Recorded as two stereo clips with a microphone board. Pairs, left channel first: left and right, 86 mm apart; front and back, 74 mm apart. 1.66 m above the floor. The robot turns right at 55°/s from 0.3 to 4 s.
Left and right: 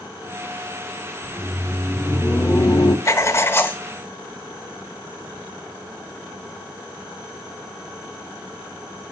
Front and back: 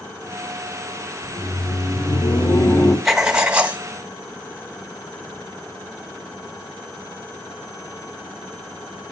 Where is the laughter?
35° right, 1.6 m; by 3.0 s 60° left, 1.6 m.